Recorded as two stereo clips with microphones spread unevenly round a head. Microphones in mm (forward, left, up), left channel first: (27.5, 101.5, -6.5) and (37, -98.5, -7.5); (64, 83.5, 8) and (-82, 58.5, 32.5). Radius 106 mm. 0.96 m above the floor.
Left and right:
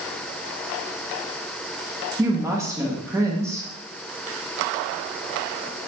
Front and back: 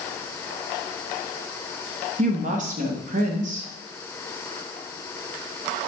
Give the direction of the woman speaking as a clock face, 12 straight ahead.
5 o'clock.